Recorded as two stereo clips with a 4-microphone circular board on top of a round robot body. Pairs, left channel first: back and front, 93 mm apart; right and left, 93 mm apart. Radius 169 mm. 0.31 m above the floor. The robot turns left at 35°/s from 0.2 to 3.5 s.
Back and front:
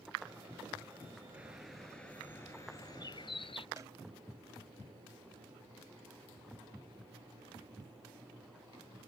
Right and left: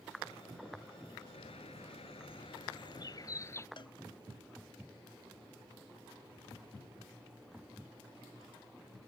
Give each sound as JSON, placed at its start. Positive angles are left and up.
{"t": 1.3, "sound": "a bird", "azimuth_deg": -75}
{"t": 3.8, "sound": "a cowbell", "azimuth_deg": -55}